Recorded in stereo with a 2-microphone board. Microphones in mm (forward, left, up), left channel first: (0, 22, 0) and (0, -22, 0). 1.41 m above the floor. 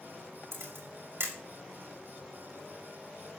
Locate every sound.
0.5 s a camera shutter: 75° right (ahead or behind), 5.5 m